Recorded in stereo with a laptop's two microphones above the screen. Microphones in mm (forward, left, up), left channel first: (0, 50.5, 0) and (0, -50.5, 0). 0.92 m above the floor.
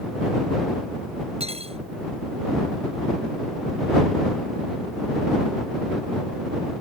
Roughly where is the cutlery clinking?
Right.